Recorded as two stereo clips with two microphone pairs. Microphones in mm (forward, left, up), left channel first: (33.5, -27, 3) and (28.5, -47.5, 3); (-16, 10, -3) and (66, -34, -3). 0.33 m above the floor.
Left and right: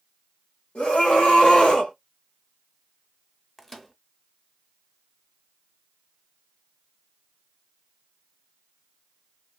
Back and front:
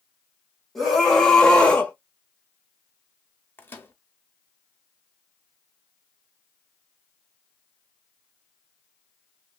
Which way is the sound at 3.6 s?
150° left.